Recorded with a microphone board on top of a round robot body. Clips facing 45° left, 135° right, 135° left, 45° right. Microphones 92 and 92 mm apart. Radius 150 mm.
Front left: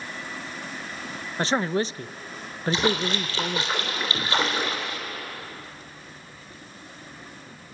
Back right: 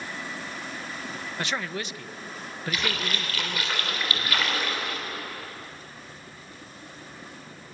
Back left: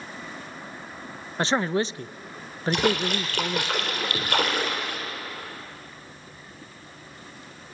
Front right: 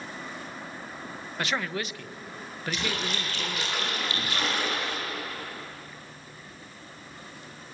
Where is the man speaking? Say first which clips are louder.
Front left 8 dB, back left 7 dB; 90° left, 0.6 m.